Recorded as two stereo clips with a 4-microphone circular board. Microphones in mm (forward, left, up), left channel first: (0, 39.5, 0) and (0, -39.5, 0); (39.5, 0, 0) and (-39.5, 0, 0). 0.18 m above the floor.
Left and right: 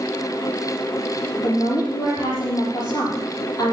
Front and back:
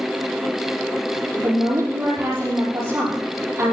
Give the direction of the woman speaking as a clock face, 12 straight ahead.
8 o'clock.